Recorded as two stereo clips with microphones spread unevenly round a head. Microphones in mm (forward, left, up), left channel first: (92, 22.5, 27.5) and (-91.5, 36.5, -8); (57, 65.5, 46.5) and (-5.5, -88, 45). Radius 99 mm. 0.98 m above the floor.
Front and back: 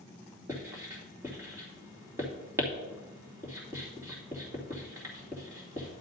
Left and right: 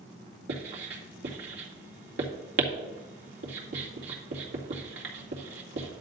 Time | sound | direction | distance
0.5 | writing | 110° right | 2.5 m